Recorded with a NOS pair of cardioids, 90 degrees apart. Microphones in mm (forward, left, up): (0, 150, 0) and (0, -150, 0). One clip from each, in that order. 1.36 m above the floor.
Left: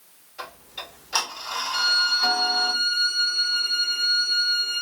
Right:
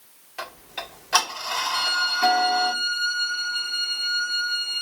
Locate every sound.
0.4 s ticking: 50° right, 1.6 m
1.7 s a violin: 15° left, 0.7 m